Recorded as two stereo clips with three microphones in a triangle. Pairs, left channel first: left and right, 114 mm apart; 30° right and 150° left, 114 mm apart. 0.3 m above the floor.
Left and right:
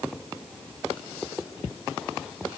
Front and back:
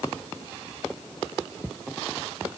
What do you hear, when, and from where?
Only background noise.